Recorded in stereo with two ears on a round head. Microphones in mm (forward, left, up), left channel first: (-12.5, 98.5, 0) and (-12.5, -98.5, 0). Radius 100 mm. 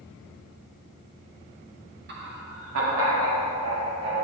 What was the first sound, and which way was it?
Laughter, 50° right (ahead or behind).